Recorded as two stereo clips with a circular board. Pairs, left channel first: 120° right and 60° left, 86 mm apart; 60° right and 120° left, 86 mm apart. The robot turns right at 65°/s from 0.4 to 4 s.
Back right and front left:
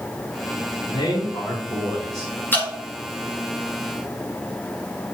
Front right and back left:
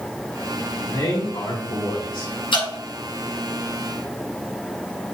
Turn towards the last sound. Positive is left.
turn(degrees=40)